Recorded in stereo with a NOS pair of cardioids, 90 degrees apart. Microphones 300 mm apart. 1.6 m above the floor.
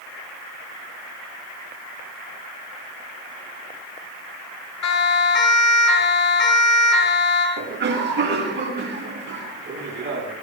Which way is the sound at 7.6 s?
40° right.